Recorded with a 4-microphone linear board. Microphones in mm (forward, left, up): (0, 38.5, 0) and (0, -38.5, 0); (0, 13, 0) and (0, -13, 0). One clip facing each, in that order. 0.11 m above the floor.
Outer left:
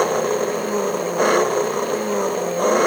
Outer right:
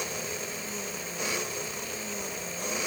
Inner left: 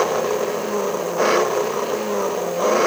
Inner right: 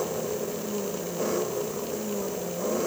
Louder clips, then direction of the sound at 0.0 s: Outer left 18 dB, inner left 10 dB; 60° left (ahead or behind).